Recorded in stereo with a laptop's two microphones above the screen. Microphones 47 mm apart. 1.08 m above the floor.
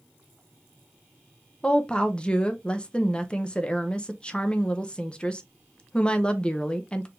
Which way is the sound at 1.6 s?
20° left (ahead or behind).